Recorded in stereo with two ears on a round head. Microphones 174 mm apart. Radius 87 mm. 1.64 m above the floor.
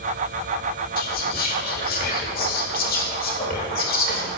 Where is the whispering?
50° left (ahead or behind), 1.6 m.